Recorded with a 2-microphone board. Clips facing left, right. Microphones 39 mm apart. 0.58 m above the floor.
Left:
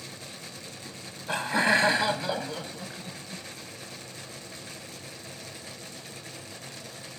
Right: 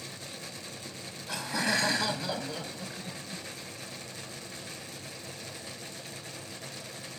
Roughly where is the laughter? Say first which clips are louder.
Left 7 dB; left.